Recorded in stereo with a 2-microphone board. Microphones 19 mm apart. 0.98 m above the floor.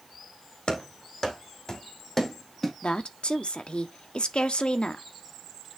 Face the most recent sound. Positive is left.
turn(degrees=75)  # may be behind; listen again after turning